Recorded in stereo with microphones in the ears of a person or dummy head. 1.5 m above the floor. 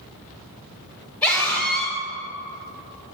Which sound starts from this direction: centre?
A scream, at 1.2 s.